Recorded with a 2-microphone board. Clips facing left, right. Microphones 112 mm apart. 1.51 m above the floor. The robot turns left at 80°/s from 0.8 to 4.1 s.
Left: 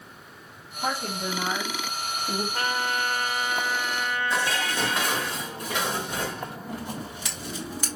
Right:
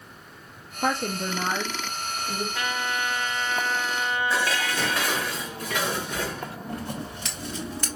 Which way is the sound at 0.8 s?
90° right.